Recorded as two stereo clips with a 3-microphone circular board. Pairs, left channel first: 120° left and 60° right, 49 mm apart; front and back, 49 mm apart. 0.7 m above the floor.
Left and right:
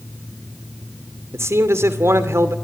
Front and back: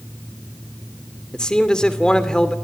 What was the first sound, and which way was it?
A man speaking, 70° right.